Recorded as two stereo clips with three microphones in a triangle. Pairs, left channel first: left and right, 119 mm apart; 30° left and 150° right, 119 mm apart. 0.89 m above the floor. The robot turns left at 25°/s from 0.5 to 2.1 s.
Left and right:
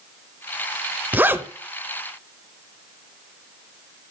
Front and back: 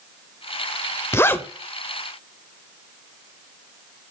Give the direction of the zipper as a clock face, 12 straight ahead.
1 o'clock.